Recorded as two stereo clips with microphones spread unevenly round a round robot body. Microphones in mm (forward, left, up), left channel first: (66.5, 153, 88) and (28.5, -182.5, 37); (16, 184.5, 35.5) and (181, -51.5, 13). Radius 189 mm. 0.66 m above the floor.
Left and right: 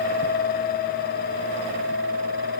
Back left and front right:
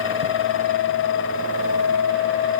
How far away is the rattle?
I don't hear a rattle.